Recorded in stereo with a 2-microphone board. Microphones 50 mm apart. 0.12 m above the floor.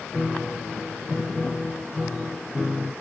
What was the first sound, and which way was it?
A piano, 5° right (ahead or behind).